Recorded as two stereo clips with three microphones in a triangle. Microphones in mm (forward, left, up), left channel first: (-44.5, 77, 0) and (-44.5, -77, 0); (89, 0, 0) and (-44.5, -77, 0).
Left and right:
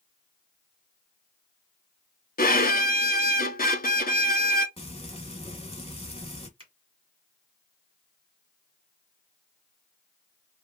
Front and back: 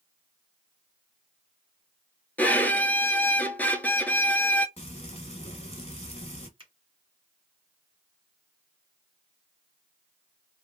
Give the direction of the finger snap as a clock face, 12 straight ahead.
4 o'clock.